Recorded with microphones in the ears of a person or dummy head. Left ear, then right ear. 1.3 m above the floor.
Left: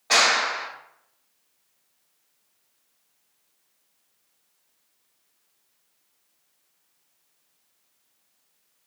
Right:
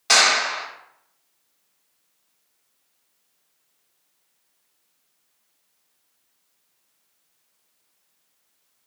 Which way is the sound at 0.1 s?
65° right (ahead or behind).